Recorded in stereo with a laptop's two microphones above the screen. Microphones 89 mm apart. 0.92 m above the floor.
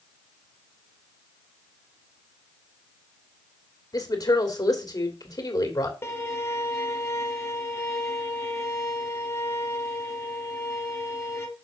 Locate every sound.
3.9 s a woman speaking: 45° left (ahead or behind), 3 m
6.0 s a violin: 30° left (ahead or behind), 1.6 m